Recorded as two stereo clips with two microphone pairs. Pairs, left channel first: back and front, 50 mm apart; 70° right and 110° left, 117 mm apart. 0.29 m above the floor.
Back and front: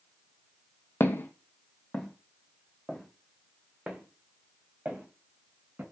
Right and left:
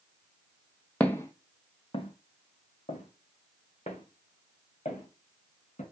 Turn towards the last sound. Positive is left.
turn(degrees=-60)